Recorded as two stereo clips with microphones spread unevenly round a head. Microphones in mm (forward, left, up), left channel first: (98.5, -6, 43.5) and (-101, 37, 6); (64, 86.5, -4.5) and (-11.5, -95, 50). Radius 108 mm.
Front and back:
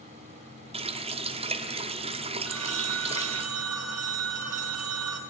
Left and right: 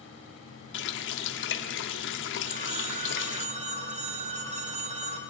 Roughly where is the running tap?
Left.